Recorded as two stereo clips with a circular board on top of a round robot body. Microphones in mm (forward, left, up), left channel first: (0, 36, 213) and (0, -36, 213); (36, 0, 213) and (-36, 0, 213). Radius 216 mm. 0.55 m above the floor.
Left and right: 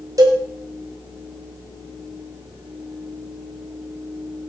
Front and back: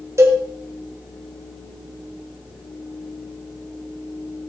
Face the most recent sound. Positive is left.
turn(degrees=-130)